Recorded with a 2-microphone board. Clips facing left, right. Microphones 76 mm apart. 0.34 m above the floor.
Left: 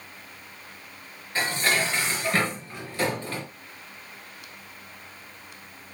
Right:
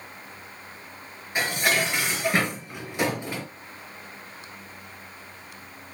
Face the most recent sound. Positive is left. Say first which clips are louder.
# right 1 dB
turn(degrees=-15)  # may be behind; listen again after turning